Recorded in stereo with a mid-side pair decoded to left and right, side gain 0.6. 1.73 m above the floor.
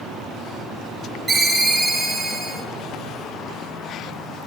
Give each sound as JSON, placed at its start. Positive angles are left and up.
{"t": 1.3, "sound": "a ringtone", "azimuth_deg": -20, "distance_m": 3.0}